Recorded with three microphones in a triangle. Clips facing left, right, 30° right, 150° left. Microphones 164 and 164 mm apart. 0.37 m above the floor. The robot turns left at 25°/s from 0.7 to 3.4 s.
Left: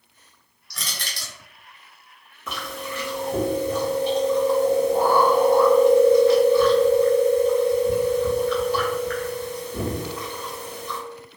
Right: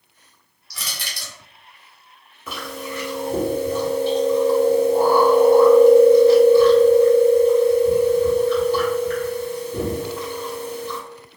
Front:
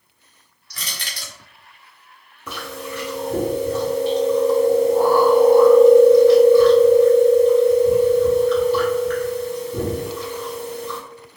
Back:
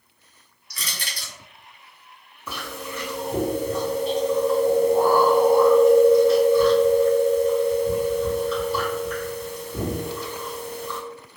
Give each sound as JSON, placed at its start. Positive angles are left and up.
{"t": 0.7, "sound": "crushing", "azimuth_deg": 0, "distance_m": 1.0}
{"t": 2.5, "sound": "chewing", "azimuth_deg": -5, "distance_m": 1.4}